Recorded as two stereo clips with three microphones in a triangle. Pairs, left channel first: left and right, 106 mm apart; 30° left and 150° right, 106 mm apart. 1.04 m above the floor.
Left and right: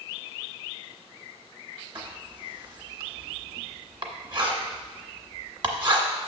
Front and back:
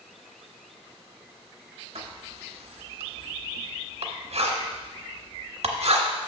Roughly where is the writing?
Behind right.